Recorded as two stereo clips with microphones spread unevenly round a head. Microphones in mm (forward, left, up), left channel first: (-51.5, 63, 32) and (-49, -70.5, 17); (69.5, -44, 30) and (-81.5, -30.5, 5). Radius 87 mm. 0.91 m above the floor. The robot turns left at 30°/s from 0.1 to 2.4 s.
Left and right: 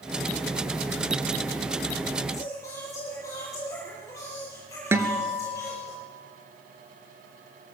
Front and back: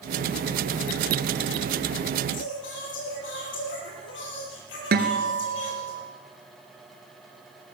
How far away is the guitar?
About 2.5 m.